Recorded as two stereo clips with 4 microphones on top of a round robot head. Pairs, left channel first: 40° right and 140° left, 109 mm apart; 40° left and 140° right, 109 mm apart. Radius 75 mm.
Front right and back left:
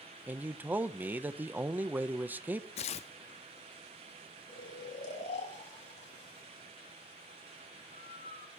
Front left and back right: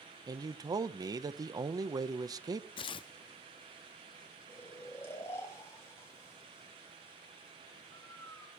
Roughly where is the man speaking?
Behind right.